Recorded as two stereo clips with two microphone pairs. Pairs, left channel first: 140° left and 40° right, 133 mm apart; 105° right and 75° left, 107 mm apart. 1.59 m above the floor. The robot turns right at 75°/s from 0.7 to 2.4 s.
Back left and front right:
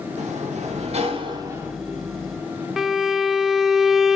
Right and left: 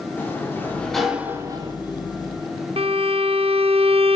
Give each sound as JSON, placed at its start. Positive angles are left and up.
{"t": 0.2, "sound": "a sliding door", "azimuth_deg": -40, "distance_m": 1.8}
{"t": 2.8, "sound": "a violin", "azimuth_deg": 50, "distance_m": 0.5}